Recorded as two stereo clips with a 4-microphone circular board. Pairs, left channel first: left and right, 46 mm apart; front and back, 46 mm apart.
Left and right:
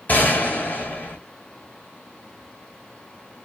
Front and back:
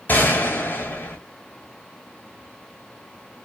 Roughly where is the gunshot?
Ahead left.